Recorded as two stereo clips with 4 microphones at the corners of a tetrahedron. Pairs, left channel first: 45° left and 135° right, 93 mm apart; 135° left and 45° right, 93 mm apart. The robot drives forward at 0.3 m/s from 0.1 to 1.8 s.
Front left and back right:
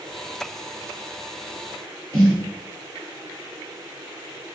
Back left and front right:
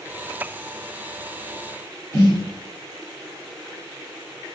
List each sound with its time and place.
2.1 s a snare drum: straight behind, 1.7 m